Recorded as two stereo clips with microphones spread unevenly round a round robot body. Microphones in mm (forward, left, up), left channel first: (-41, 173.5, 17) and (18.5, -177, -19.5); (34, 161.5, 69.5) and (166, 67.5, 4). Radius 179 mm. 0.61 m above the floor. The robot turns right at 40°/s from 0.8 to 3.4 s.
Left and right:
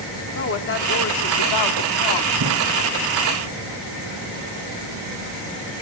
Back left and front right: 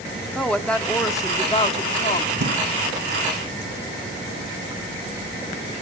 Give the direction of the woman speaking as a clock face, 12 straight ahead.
11 o'clock.